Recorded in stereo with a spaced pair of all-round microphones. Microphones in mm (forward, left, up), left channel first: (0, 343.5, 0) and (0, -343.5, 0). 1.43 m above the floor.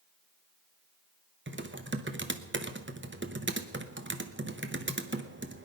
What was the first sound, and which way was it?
Typing on a keyboard, 15° right (ahead or behind).